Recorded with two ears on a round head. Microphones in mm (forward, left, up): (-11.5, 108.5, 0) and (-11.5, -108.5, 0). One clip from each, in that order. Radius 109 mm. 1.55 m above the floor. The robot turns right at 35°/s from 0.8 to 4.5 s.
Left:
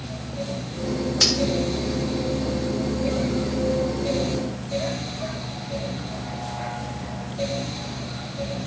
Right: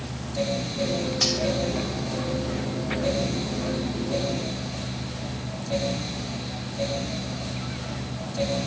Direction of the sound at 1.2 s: 20° left (ahead or behind).